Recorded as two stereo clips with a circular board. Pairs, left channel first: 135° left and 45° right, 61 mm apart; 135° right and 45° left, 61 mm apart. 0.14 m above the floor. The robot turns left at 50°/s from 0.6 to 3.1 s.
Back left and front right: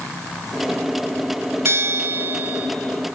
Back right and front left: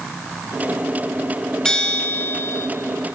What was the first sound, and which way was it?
A bell, 55° right.